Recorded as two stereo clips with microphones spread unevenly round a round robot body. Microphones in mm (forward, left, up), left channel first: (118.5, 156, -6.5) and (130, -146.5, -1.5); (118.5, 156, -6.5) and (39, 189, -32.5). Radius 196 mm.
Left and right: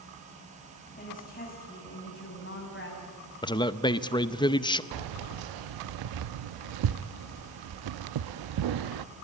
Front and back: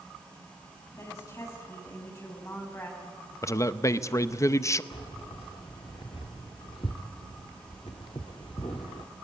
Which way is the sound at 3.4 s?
30° left.